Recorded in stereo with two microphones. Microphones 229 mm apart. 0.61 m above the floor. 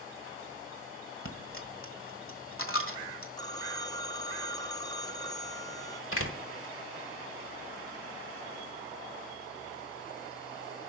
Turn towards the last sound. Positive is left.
turn(degrees=70)  # may be behind; listen again after turning